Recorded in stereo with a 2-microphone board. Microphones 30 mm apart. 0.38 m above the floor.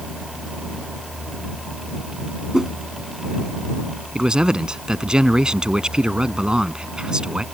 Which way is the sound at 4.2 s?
30° right (ahead or behind).